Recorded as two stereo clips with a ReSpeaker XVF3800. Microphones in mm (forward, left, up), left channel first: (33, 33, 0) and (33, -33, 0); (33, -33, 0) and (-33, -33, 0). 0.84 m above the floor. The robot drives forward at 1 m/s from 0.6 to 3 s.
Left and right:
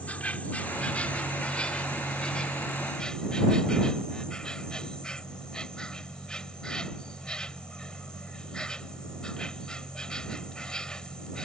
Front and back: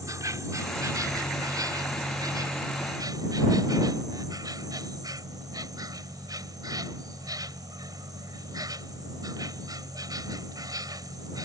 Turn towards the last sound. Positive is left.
turn(degrees=165)